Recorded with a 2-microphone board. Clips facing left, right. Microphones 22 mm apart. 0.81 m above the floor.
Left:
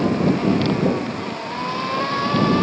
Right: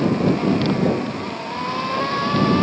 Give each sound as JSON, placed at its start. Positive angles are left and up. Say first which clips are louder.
{"t": 0.8, "sound": "footsteps", "louder": "even", "side_deg": -20}